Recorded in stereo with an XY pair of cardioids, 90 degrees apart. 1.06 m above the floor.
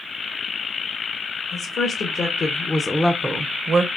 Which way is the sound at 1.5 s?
65° left.